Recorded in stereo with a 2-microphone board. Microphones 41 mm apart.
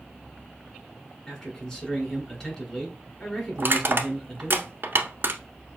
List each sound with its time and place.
1.3 s a man speaking: 15° left (ahead or behind), 2.0 m
3.6 s crushing: 55° right (ahead or behind), 1.0 m